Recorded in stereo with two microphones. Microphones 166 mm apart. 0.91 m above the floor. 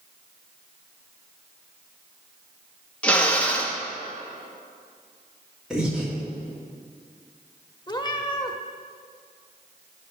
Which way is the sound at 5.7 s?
5° right (ahead or behind).